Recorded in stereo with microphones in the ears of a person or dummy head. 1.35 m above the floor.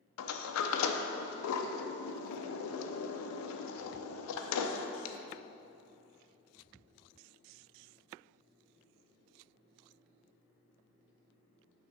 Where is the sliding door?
85° left, 0.6 m.